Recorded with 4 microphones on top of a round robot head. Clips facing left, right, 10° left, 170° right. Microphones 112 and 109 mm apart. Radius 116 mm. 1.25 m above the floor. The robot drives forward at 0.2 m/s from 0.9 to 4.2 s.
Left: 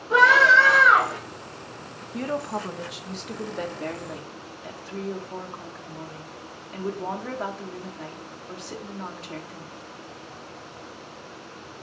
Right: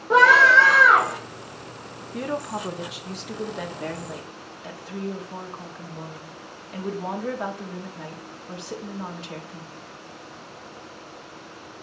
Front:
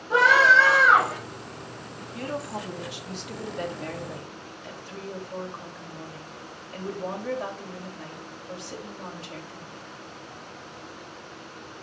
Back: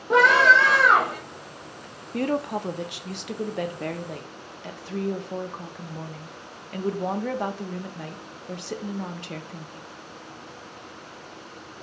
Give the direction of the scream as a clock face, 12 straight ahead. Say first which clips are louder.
Right 2 dB, back 1 dB; 5 o'clock.